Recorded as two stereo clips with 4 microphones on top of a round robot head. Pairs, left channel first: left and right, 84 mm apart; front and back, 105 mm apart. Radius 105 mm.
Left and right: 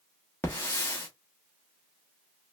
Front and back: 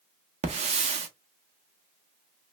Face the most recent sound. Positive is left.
turn(degrees=165)